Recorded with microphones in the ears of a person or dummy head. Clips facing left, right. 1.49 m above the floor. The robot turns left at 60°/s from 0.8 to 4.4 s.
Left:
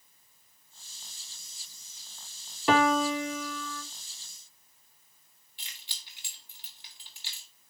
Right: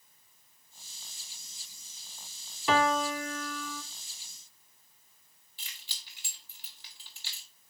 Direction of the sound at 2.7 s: 50° left.